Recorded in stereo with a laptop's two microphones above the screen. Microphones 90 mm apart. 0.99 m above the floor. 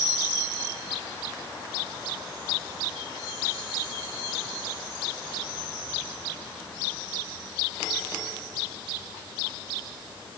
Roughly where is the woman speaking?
No woman speaking in this recording.